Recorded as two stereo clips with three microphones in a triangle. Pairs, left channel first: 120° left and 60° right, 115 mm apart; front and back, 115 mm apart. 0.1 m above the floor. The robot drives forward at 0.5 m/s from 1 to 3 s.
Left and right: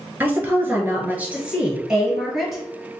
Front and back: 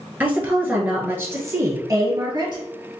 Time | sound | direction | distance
0.2 | a woman speaking | 120° right | 1.4 m